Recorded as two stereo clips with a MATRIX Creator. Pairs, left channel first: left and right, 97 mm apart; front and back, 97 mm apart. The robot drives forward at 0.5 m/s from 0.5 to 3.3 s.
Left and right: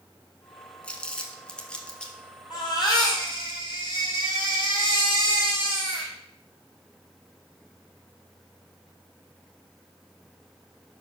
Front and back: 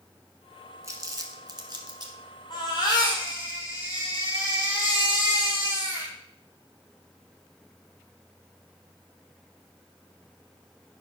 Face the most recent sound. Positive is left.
turn(degrees=50)